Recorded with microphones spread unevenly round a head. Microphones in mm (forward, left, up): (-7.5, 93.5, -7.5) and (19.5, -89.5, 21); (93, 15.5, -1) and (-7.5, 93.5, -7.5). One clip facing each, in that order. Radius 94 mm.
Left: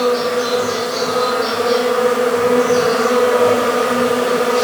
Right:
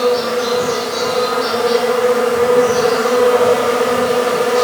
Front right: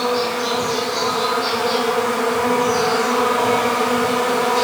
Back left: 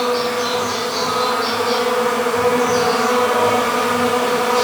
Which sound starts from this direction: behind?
An insect, at 0.0 s.